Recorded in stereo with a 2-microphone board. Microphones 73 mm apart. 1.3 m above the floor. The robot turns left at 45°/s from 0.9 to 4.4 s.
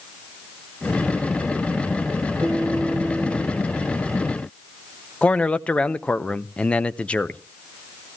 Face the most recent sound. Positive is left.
turn(degrees=15)  # may be behind; listen again after turning